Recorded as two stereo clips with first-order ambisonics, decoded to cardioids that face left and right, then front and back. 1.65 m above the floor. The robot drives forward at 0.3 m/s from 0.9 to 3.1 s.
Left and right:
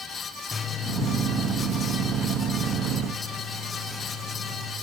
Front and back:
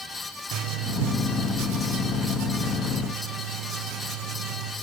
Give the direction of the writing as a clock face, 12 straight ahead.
7 o'clock.